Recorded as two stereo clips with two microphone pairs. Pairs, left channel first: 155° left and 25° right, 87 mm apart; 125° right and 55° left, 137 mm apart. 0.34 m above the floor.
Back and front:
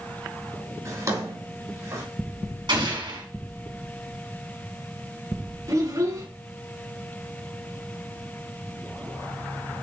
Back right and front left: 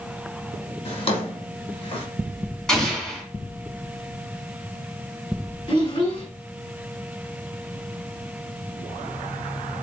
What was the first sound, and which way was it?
A drawer, 80° right.